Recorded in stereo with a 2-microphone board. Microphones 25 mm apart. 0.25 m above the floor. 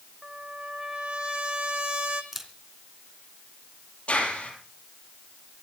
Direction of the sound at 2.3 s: 15° right (ahead or behind).